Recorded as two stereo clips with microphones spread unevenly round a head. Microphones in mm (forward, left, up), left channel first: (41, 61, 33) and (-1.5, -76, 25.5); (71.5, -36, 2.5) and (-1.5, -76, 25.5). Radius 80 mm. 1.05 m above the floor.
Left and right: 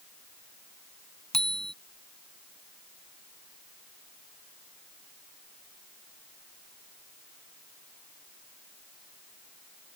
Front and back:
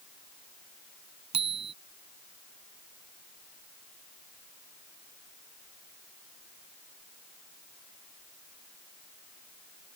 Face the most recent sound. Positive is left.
turn(degrees=160)